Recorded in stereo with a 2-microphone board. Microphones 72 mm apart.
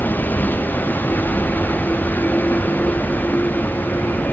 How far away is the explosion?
I don't hear an explosion.